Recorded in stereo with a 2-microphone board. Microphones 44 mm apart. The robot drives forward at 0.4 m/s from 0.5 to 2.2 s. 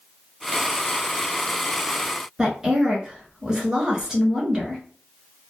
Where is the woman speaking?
15° right (ahead or behind), 1.2 m.